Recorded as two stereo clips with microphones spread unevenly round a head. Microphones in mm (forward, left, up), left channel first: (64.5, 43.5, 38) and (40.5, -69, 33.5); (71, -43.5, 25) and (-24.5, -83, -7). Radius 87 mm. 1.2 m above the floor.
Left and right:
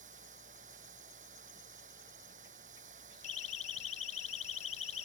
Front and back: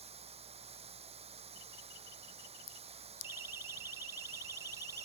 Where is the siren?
125° left; by 5.1 s 130° left.